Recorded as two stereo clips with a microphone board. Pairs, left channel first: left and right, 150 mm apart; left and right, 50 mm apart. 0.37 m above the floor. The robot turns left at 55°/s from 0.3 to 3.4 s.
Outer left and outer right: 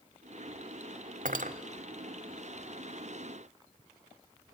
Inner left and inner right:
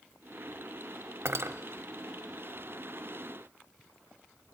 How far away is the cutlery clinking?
About 1.0 m.